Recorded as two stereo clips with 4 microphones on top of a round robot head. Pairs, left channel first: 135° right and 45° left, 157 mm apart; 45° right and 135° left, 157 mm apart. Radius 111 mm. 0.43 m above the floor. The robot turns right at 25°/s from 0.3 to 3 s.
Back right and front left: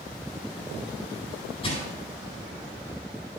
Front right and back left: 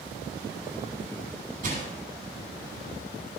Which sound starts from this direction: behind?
Crushing, at 1.6 s.